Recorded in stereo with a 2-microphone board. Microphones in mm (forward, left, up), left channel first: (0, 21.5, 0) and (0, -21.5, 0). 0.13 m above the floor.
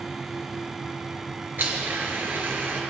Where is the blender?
55° right (ahead or behind), 1.7 m.